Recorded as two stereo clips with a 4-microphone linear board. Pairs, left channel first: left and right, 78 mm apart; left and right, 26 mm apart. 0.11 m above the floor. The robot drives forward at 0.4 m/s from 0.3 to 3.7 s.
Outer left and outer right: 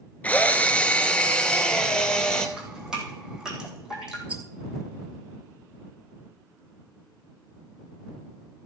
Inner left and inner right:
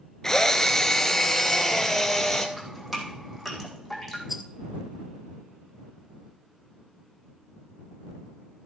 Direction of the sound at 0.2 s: 20° left (ahead or behind).